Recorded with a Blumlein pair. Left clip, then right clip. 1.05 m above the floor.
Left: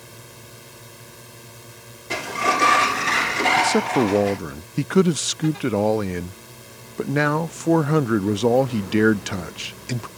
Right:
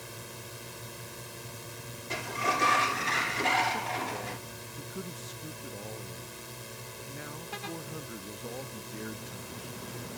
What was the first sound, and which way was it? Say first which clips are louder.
A drone: left 1 dB; straight ahead.